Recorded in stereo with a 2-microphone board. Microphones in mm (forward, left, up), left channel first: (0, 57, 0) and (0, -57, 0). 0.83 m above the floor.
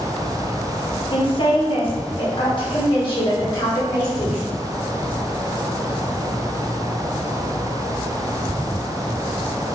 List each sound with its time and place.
1.1 s a woman speaking: 45° left (ahead or behind), 0.8 m; by 4.5 s 40° left (ahead or behind), 2 m